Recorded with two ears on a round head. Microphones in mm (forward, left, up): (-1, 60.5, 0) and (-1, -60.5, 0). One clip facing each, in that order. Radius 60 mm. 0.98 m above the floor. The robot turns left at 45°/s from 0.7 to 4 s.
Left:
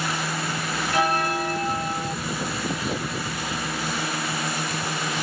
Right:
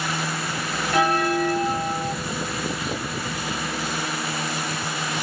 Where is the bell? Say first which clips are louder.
Right 3 dB; 65° right, 1.1 m; by 2.1 s 120° right, 1.1 m.